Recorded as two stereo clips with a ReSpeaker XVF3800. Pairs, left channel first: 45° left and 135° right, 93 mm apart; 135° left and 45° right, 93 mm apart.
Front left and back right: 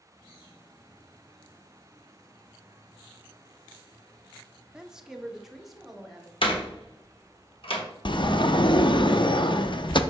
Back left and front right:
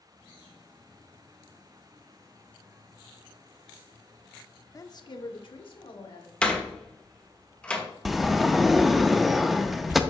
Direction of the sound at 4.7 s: 150° left.